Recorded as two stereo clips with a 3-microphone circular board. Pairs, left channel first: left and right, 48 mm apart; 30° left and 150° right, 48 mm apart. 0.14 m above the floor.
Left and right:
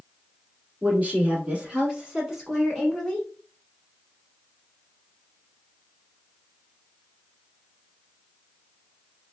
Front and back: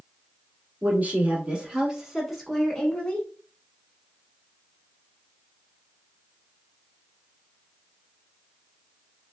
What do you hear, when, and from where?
0.8 s a woman speaking: 125° right, 1.4 m; by 3.3 s 25° left, 1.1 m